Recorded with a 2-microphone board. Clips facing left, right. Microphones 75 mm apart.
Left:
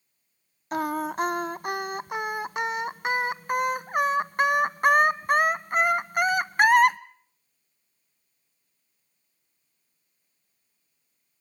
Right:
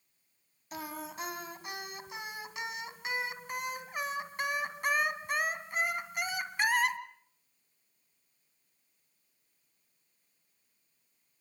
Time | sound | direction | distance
0.7 | singing | 55° left (ahead or behind) | 0.8 m